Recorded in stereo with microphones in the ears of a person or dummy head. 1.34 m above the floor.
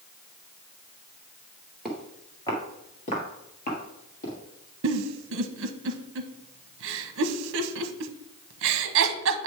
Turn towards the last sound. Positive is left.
turn(degrees=-65)  # may be behind; listen again after turning